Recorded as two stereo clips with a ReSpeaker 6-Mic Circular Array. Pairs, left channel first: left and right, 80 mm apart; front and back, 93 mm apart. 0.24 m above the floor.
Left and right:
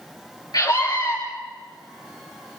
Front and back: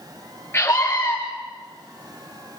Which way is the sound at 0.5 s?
65° left.